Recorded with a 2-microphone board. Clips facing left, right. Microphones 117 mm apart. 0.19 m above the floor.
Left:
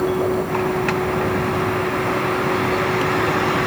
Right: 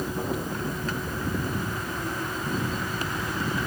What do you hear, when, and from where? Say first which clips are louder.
0.0 s a vehicle: left 11 dB; 80° left